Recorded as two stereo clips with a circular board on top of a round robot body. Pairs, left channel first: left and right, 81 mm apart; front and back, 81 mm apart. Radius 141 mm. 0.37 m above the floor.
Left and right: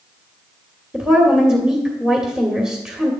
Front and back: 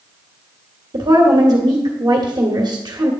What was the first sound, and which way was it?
A woman speaking, 165° right.